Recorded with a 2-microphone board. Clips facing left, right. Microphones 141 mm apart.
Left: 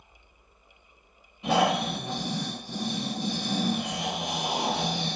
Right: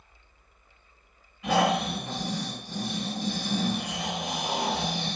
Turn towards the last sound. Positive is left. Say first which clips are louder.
# even
turn(degrees=25)  # may be behind; listen again after turning